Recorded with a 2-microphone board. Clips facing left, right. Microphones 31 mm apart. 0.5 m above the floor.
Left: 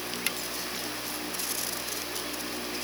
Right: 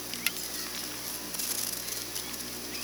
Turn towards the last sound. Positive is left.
No sound to turn to.